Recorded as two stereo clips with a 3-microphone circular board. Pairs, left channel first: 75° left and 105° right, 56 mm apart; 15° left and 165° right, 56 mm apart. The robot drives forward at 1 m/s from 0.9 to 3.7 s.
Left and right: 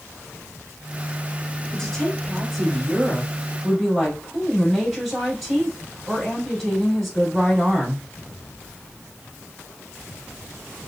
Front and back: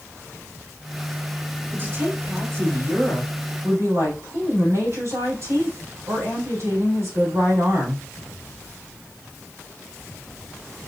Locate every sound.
1.7 s a woman speaking: 145° left, 2.5 m; by 8.0 s 165° left, 4 m